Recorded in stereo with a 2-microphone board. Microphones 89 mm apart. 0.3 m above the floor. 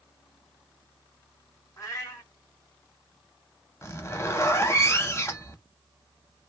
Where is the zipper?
30° left (ahead or behind), 0.6 m.